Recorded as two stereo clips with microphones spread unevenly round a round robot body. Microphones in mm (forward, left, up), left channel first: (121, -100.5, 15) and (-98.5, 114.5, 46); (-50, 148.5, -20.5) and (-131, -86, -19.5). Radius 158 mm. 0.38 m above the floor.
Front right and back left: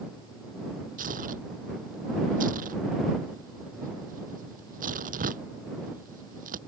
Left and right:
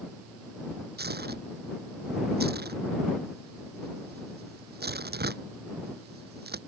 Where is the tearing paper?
160° right.